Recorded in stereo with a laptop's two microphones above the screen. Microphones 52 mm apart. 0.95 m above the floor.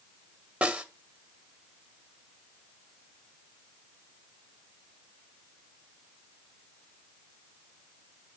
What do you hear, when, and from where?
0.6 s a snare drum: 25° right (ahead or behind), 1.0 m